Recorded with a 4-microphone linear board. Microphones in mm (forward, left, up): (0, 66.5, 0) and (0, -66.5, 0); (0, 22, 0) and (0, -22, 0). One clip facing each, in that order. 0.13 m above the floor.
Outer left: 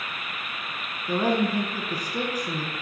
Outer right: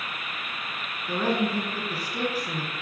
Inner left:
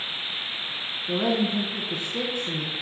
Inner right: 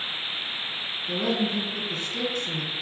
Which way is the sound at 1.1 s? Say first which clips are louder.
Outer left 2 dB, inner left 2 dB; 15° left (ahead or behind).